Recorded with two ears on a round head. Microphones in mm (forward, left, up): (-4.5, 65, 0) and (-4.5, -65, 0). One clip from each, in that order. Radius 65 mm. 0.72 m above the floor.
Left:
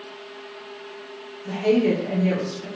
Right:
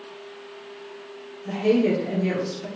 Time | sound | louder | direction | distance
1.4 | a woman speaking | left 1 dB | 25° left (ahead or behind) | 1.9 m